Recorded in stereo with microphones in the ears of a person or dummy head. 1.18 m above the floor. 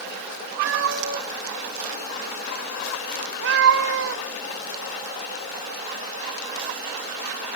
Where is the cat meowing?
65° right (ahead or behind), 1.5 m.